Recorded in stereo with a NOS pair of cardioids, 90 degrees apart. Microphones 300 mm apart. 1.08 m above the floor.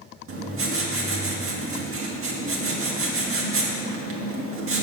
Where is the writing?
45° right, 1.8 m.